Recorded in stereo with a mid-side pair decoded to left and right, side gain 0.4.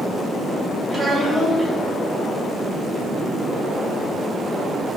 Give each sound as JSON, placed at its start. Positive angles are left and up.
{"t": 0.9, "sound": "a child speaking", "azimuth_deg": -15, "distance_m": 1.7}